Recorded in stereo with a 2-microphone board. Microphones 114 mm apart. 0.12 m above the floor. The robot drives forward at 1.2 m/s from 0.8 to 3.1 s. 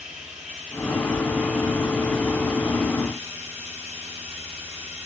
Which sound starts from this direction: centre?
Running water, at 0.0 s.